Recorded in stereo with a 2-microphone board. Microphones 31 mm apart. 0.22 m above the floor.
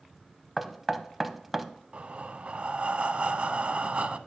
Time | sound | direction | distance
0.6 | knocking | 5° right (ahead or behind) | 0.6 m
1.9 | breathing | 45° right (ahead or behind) | 0.5 m